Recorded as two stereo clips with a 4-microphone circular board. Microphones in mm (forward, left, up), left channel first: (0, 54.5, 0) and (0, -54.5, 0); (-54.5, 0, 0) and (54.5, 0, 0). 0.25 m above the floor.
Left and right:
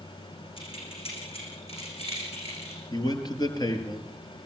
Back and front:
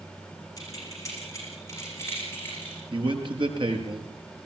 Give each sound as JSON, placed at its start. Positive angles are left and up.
{"t": 0.6, "sound": "keys jangling", "azimuth_deg": 125, "distance_m": 9.5}
{"t": 2.9, "sound": "a man speaking", "azimuth_deg": 40, "distance_m": 4.5}